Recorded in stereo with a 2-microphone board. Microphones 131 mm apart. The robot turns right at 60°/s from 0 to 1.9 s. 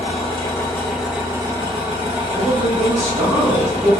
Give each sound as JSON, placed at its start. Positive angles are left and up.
{"t": 0.0, "sound": "an engine running", "azimuth_deg": 115, "distance_m": 1.4}
{"t": 2.4, "sound": "a man speaking", "side_deg": -25, "distance_m": 1.0}